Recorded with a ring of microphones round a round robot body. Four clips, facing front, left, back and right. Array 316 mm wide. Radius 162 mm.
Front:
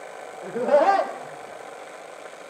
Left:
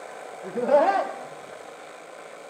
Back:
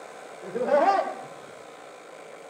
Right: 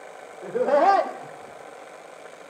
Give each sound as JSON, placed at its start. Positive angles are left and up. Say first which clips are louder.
{"t": 0.4, "sound": "laughter", "louder": "right 1 dB, front 3 dB", "azimuth_deg": -95, "distance_m": 3.0}